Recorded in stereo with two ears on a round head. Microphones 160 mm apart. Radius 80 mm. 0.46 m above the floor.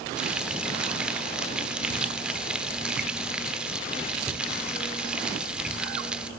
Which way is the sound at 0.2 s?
5° right (ahead or behind).